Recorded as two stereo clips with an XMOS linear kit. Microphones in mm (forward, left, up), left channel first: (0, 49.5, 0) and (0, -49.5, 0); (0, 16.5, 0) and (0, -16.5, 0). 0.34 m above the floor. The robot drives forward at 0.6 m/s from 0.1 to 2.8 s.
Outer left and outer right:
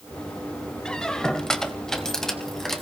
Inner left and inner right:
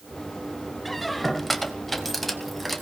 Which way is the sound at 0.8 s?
10° left (ahead or behind).